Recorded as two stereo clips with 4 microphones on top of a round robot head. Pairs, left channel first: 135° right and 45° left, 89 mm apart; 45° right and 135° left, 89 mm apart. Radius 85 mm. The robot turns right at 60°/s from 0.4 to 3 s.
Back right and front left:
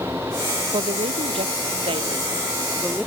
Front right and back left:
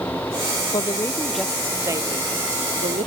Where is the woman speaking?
5° left; by 3.1 s 140° left.